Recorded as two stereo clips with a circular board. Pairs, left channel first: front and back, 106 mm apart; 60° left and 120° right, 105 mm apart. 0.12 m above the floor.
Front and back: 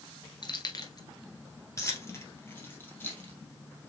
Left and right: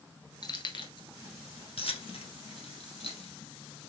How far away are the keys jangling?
About 1.3 m.